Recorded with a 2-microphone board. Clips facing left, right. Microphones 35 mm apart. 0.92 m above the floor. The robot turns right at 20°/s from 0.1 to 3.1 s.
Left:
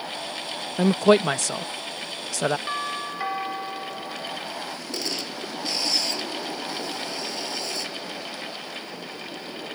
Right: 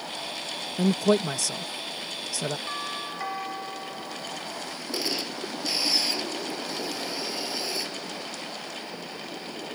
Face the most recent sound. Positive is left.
turn(degrees=-10)  # may be behind; listen again after turning